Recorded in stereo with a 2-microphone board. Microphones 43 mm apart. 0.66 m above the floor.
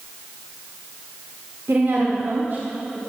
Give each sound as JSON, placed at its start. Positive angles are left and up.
{"t": 1.7, "sound": "a woman speaking", "side_deg": -70, "distance_m": 1.6}